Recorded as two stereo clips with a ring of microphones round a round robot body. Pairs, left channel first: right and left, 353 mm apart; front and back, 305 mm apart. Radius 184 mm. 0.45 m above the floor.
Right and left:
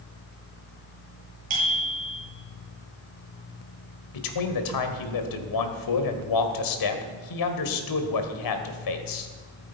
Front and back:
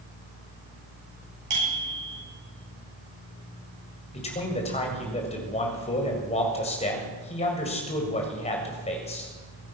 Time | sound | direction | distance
1.5 | a bicycle bell | 160° left | 9 m
4.1 | a man speaking | 70° right | 2 m